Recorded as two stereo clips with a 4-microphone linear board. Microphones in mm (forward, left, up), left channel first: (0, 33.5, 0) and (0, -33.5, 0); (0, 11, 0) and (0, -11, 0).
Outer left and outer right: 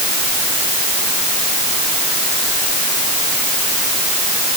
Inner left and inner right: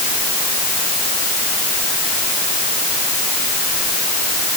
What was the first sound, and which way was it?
Only background noise.